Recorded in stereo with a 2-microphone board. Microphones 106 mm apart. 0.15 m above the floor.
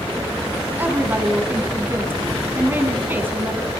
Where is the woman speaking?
20° right (ahead or behind), 1.7 m.